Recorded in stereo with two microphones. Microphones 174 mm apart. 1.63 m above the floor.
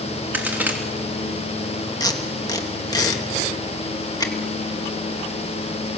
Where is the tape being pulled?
20° left (ahead or behind), 1.8 m.